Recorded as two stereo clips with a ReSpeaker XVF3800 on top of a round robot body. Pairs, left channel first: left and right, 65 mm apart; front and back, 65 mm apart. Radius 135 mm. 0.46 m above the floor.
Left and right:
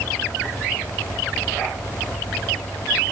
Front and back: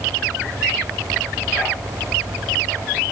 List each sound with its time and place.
Only background noise.